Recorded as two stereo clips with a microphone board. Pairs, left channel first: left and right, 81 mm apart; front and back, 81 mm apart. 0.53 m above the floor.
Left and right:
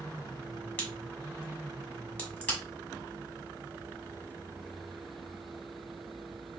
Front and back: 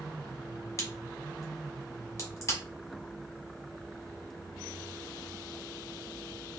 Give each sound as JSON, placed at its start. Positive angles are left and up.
{"t": 0.8, "sound": "a crack", "azimuth_deg": 30, "distance_m": 1.1}